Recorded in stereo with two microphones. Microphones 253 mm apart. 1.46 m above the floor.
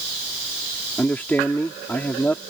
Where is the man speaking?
5° left (ahead or behind).